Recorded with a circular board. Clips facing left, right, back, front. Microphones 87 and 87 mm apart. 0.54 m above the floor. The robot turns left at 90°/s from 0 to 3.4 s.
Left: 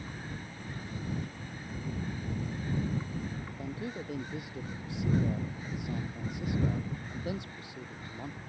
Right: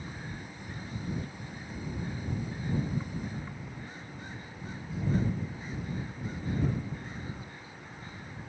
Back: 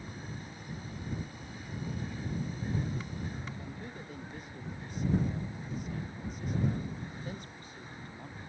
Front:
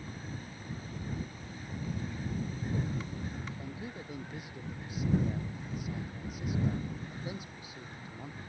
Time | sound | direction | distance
3.6 | a man speaking | 85° left | ?